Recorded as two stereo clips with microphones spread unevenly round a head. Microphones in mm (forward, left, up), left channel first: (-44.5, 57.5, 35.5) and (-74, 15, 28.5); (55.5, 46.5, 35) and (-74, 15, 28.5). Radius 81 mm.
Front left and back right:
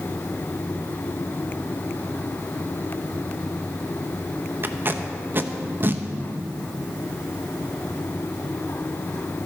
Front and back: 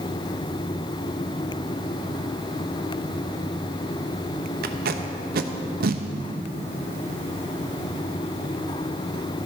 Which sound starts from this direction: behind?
Tape being pulled, at 4.6 s.